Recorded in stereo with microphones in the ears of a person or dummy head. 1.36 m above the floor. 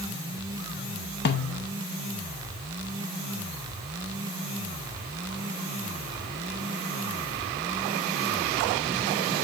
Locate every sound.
1.2 s a snare drum: 55° left (ahead or behind), 0.8 m